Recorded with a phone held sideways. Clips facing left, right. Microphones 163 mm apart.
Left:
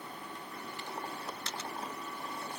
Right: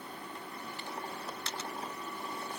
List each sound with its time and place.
Only background noise.